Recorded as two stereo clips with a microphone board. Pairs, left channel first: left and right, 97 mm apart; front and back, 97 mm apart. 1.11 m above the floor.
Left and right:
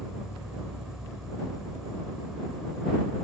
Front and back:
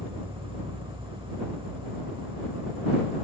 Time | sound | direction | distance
0.0 | an insect | 175° right | ?